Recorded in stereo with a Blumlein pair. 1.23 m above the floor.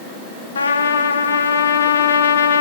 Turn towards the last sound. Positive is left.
turn(degrees=70)